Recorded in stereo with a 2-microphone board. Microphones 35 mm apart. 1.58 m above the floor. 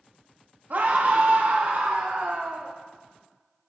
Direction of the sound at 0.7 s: 55° right (ahead or behind).